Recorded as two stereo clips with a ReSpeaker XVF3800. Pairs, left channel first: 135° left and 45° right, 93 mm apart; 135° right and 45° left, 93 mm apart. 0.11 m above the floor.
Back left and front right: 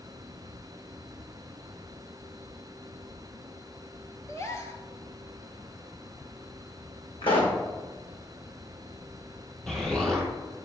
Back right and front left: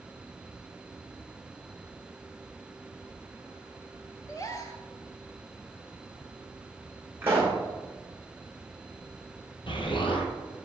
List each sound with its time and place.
4.3 s a gasp: 175° right, 0.7 m
7.2 s a pop: 110° left, 1.6 m
9.7 s an explosion: 140° right, 1.2 m